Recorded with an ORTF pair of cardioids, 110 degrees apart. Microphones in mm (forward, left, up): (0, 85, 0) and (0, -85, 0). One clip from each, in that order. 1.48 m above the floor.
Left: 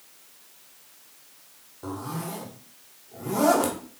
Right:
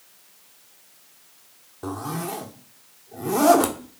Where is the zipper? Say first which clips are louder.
Right 4 dB; 30° right, 1.2 m.